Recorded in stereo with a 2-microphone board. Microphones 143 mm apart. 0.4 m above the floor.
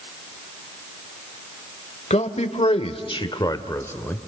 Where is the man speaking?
50° left (ahead or behind), 1.3 m; by 4.2 s 10° left (ahead or behind), 1.2 m.